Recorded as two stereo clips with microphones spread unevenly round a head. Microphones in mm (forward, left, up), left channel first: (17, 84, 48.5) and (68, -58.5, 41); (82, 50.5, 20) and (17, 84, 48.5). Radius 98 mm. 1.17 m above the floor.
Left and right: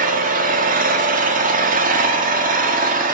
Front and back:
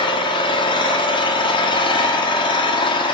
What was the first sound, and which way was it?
An engine running, 40° right.